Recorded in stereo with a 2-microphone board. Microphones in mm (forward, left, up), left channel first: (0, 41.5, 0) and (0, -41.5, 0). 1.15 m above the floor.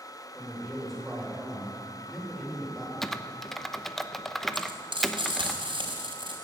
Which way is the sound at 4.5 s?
90° right.